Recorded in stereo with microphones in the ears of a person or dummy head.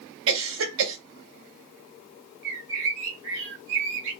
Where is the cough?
75° right (ahead or behind), 1.6 m.